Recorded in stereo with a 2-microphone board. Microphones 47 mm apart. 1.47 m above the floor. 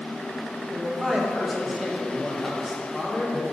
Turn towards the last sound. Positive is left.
turn(degrees=-5)  # may be behind; listen again after turning